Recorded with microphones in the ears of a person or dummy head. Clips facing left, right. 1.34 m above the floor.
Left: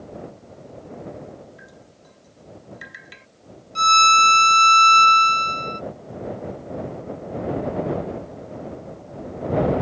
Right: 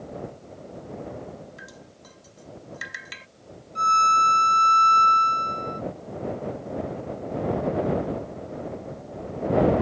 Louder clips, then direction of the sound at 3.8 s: Left 4 dB; 50° left (ahead or behind).